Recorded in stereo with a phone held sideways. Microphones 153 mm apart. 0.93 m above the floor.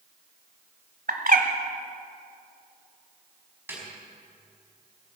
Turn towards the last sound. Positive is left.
turn(degrees=-15)  # may be behind; listen again after turning